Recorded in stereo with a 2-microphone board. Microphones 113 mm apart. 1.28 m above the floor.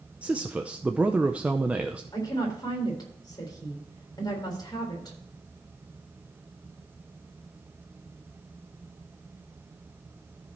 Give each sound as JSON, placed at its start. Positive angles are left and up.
{"t": 0.2, "sound": "a man speaking", "side_deg": -10, "distance_m": 0.6}
{"t": 2.1, "sound": "a woman speaking", "side_deg": 40, "distance_m": 4.0}